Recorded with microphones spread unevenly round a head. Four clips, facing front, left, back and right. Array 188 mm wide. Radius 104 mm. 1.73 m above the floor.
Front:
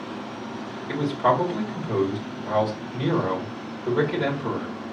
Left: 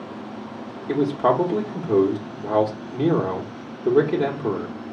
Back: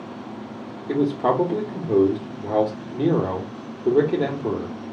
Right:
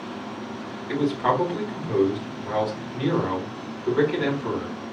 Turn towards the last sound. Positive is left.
turn(degrees=130)